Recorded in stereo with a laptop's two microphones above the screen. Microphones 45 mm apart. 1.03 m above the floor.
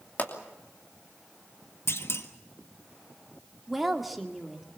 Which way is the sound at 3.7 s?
Centre (ahead or behind).